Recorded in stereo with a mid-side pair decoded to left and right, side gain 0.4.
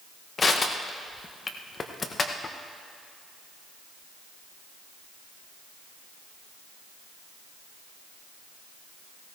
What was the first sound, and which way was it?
Crushing, 40° left.